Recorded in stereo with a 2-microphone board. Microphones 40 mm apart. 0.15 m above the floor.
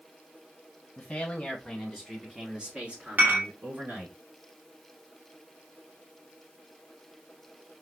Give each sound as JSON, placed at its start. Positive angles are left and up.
{"t": 1.0, "sound": "a man speaking", "side_deg": 25, "distance_m": 1.4}
{"t": 3.2, "sound": "dishes clattering", "side_deg": -40, "distance_m": 2.0}